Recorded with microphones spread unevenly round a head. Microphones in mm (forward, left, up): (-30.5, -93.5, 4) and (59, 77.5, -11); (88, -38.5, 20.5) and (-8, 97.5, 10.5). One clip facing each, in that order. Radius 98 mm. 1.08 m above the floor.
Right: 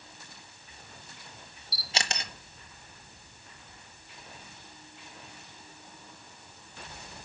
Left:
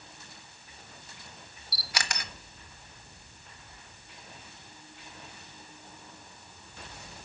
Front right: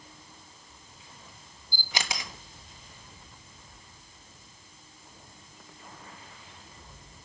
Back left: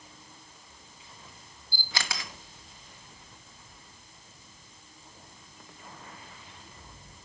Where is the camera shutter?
100° right, 0.9 m.